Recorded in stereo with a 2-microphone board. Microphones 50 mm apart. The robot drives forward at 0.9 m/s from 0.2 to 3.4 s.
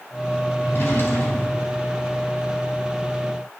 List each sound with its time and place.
0.6 s a drawer: 50° left (ahead or behind), 4 m; by 1.8 s 60° left (ahead or behind), 3.5 m